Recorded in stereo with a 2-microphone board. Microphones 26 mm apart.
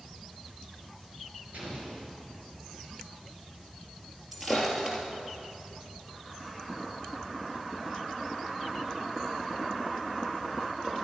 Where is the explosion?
55° right (ahead or behind), 4.5 m.